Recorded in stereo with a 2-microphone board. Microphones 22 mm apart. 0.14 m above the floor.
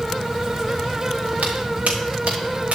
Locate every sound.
1.4 s footsteps: 75° right (ahead or behind), 5.5 m; by 2.8 s 85° right, 5 m